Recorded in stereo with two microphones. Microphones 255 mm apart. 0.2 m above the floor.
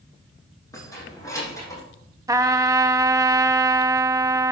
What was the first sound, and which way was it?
Keys jangling, 15° left (ahead or behind).